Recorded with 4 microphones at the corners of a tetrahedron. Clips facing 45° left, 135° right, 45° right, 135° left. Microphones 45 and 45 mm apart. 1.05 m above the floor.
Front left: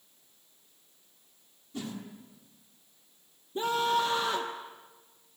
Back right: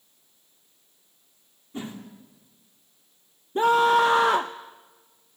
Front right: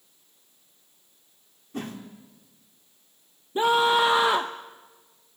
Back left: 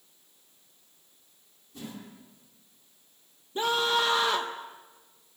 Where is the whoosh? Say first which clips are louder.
Back right 3 dB, front right 7 dB; 75° right, 3 m.